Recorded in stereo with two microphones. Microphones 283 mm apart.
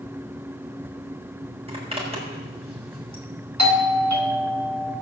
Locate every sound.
1.7 s a zipper: 20° right (ahead or behind), 5.5 m
3.6 s a doorbell: 75° right (ahead or behind), 2.5 m